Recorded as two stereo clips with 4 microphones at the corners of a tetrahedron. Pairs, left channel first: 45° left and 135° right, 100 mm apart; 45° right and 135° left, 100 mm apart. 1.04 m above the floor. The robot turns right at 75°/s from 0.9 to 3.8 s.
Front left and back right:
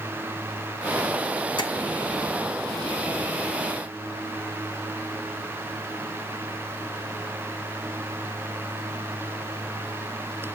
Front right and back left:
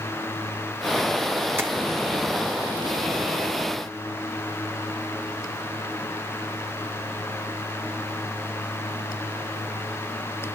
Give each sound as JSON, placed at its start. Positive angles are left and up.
{"t": 1.6, "sound": "tapping", "azimuth_deg": 70, "distance_m": 1.8}